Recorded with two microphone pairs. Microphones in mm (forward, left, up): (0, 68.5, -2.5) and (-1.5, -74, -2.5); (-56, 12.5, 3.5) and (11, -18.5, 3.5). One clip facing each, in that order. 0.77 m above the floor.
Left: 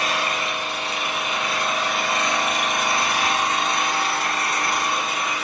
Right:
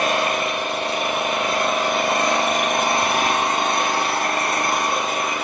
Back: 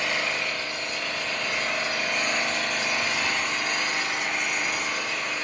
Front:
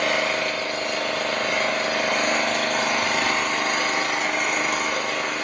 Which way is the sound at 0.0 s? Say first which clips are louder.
Right 5 dB, front 5 dB; 50° right.